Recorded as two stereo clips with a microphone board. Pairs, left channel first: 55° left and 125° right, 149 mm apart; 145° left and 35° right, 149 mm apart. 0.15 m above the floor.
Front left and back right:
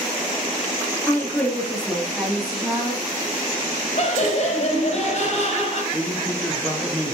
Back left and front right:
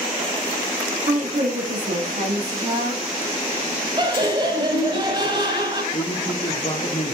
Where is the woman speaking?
20° right, 3 m; by 3.1 s 35° right, 4.5 m.